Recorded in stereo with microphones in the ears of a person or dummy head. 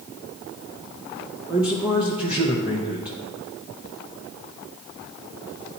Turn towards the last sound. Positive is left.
turn(degrees=-10)  # may be behind; listen again after turning